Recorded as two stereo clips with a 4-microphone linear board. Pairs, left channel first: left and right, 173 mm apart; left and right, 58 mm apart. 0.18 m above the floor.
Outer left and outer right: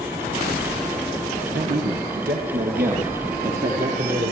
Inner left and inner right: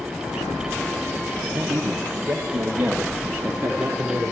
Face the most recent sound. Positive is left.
turn(degrees=-55)  # may be behind; listen again after turning